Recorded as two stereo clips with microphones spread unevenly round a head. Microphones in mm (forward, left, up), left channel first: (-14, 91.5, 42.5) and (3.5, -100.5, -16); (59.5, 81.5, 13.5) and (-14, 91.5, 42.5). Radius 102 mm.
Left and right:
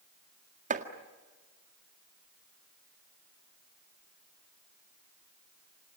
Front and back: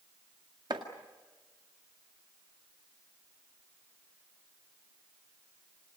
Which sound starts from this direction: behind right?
Chopping, at 0.7 s.